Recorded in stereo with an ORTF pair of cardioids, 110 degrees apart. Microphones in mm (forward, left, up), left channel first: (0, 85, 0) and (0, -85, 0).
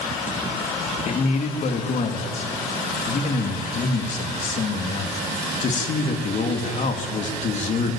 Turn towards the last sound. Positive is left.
turn(degrees=45)